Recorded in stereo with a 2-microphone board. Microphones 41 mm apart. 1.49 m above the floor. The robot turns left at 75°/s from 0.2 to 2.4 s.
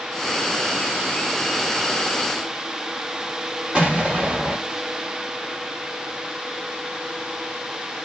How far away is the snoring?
No snoring in this recording.